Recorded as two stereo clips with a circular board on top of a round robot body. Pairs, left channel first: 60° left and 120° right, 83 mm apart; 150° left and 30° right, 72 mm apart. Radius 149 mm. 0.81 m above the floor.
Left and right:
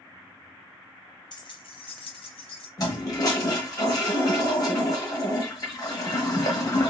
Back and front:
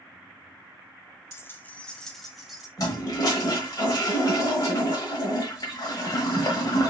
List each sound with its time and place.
1.3 s keys jangling: 95° left, 0.9 m; by 2.7 s 55° left, 1.6 m
2.8 s a toilet flushing: 110° left, 1.2 m